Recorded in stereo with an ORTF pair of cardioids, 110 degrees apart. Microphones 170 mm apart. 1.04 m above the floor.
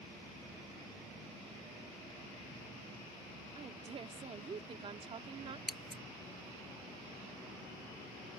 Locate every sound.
3.5 s a woman speaking: 35° right
5.7 s scissors: straight ahead